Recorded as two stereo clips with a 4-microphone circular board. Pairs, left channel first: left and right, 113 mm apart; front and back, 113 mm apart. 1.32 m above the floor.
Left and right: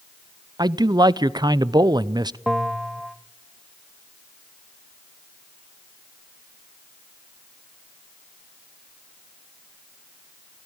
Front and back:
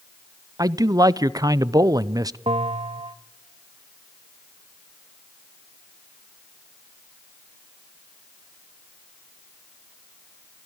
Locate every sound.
0.6 s a man speaking: 130° right, 0.5 m
2.5 s a bell: straight behind, 0.8 m